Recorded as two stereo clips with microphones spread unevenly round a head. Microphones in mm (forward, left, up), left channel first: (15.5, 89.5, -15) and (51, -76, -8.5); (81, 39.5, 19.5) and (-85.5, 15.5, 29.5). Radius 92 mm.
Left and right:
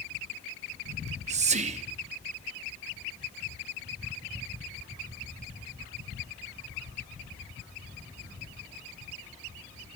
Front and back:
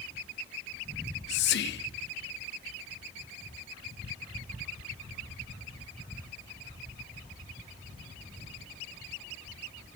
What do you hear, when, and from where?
0.9 s whispering: 25° right, 0.6 m